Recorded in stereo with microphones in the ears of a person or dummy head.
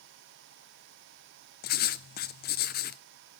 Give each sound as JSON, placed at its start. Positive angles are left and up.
{"t": 1.6, "sound": "writing", "side_deg": 45, "distance_m": 0.5}